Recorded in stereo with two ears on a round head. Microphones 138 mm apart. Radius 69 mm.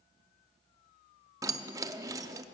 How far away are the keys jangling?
About 0.6 m.